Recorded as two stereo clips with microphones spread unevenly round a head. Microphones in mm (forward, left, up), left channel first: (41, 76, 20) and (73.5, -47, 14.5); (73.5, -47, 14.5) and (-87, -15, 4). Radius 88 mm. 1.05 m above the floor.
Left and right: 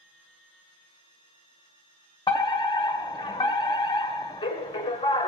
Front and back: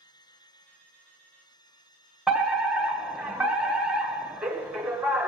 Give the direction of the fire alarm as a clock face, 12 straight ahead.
9 o'clock.